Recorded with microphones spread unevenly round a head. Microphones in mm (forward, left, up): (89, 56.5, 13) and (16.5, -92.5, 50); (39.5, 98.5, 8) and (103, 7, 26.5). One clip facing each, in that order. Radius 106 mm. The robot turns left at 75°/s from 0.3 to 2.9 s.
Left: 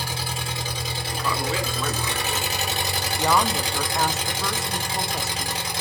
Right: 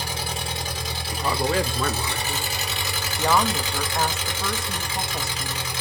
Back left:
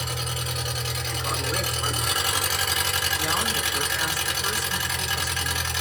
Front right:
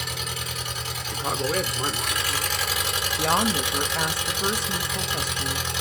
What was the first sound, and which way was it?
An engine running, 160° right.